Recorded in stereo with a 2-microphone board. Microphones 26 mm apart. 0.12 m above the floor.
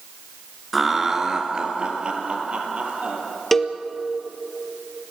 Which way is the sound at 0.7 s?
5° right (ahead or behind).